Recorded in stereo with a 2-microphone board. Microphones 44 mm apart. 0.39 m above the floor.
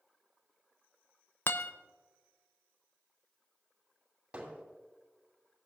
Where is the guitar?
55° left (ahead or behind), 0.5 m.